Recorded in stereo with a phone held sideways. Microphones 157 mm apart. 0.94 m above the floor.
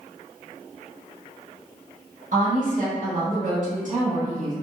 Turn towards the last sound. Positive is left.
turn(degrees=-55)  # may be behind; listen again after turning